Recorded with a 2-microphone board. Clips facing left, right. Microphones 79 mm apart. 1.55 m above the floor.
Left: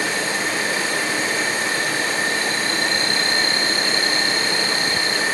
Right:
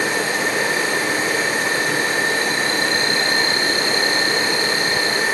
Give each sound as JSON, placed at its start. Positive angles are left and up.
{"t": 0.0, "sound": "an insect", "side_deg": -45, "distance_m": 4.5}